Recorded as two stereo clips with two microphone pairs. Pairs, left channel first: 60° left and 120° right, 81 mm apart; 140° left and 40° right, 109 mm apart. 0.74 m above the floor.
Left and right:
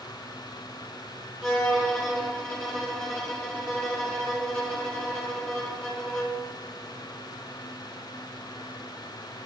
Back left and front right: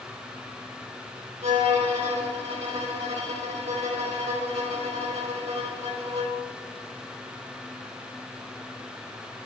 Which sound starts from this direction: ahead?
A violin, at 1.4 s.